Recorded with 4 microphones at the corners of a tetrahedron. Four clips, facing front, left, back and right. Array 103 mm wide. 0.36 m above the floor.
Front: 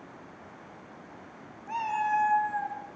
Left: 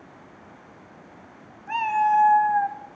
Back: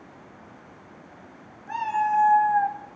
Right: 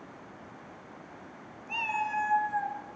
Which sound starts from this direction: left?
A cat meowing, at 1.7 s.